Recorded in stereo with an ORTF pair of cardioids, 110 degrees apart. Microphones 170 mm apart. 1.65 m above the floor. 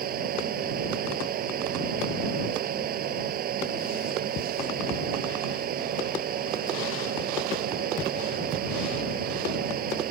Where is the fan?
60° right.